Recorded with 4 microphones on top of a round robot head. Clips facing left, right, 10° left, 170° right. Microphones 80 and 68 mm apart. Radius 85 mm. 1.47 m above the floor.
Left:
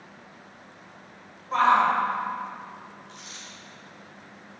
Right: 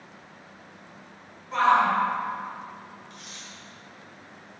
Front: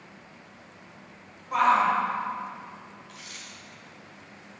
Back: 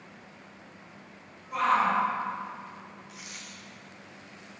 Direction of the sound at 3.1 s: 120° left.